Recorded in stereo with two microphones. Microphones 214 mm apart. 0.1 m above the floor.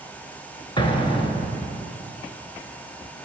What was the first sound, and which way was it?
An explosion, 25° left (ahead or behind).